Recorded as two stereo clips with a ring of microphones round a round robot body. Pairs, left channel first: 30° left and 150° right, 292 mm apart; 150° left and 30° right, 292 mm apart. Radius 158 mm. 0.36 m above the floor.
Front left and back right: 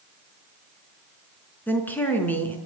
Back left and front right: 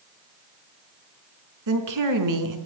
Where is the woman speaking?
55° right, 4.5 m.